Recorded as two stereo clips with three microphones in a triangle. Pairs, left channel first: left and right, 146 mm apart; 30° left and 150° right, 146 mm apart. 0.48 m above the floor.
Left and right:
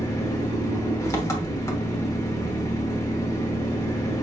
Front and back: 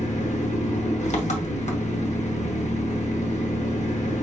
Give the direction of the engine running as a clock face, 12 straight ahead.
11 o'clock.